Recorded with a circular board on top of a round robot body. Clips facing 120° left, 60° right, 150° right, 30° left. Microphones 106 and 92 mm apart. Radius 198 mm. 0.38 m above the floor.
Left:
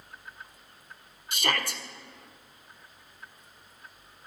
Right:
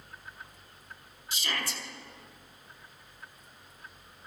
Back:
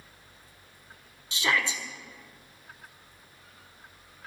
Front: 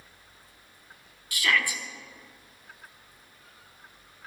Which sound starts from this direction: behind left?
A shout, at 1.3 s.